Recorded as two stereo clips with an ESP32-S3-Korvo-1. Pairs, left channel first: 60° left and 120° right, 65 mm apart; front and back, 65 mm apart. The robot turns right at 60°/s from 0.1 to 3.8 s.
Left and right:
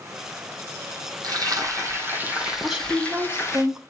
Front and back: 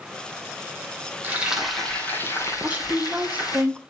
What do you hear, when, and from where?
1.2 s frying: 120° right, 2.5 m; by 3.6 s 25° left, 2.5 m
2.6 s a woman speaking: 165° left, 1.0 m; by 3.8 s 120° right, 1.0 m